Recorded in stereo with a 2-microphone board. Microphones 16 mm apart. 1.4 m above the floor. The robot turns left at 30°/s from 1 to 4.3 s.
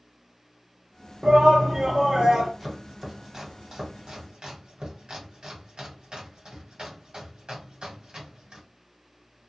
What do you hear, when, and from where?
1.2 s a shout: 80° right, 0.5 m; by 2.5 s 120° right, 0.5 m
2.6 s chopping: 15° right (ahead or behind), 1.3 m; by 8.6 s 60° right (ahead or behind), 1.3 m